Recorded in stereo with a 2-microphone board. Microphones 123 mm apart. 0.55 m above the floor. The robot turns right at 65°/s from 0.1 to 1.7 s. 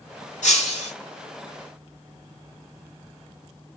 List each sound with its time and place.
0.4 s breaking glass: 95° left, 3 m; by 0.9 s 125° left, 3 m